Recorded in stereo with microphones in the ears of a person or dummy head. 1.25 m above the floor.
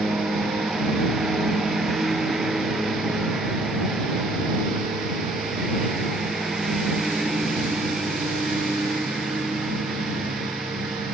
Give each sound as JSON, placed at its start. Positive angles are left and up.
{"t": 0.0, "sound": "a lawn mower", "side_deg": 0}